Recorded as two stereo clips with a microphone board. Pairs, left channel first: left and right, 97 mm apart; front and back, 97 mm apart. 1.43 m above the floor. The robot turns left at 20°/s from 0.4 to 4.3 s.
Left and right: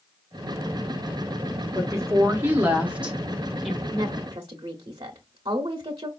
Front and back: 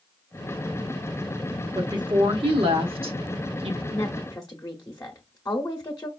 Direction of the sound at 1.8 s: 145° right.